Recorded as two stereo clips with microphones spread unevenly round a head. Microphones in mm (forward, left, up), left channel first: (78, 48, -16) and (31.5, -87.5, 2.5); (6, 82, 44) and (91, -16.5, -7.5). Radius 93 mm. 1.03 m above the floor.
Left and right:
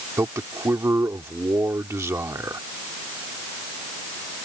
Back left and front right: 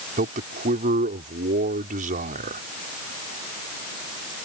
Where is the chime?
I don't hear a chime.